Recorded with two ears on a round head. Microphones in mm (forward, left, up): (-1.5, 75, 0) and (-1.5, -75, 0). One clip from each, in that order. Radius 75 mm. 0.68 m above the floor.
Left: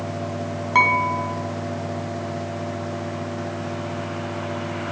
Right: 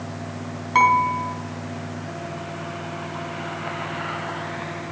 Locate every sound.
0.8 s dishes clattering: centre (ahead or behind), 3.5 m